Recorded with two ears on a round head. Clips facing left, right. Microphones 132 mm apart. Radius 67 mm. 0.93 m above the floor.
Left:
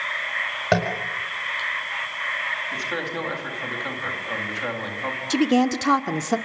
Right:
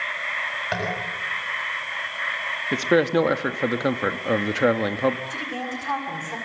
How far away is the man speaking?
About 2.0 m.